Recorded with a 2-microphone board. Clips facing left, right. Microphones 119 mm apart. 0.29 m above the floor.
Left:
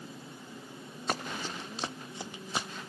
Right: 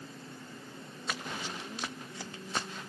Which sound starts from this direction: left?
Running footsteps, at 1.1 s.